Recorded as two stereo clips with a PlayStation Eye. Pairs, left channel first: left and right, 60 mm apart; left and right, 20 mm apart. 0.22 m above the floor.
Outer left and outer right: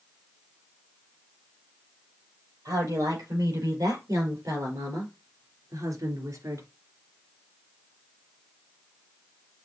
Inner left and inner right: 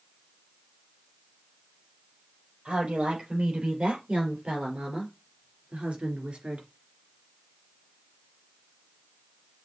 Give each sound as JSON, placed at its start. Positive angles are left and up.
{"t": 2.6, "sound": "a woman speaking", "side_deg": -65, "distance_m": 5.0}